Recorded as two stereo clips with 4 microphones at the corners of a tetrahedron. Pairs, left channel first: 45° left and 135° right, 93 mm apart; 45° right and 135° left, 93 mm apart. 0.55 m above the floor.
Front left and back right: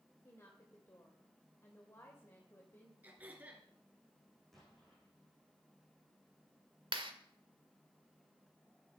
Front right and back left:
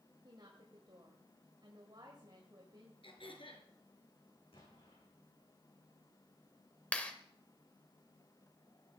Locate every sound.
0.2 s a woman speaking: 105° left, 2 m
3.0 s throat clearing: 65° right, 3.5 m
4.5 s an explosion: 40° right, 8.5 m
6.9 s a clap: 120° right, 1.7 m